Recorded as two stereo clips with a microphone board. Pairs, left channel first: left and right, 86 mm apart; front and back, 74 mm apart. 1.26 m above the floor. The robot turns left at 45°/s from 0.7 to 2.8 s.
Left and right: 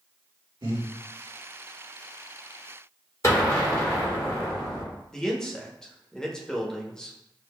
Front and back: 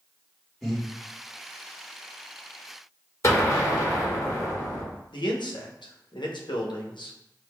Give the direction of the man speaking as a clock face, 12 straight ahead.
12 o'clock.